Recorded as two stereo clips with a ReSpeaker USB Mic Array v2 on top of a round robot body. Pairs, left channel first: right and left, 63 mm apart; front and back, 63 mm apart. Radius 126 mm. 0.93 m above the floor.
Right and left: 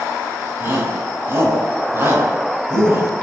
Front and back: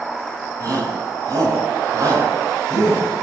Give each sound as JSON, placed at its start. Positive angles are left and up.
{"t": 0.6, "sound": "a shout", "azimuth_deg": 145, "distance_m": 7.0}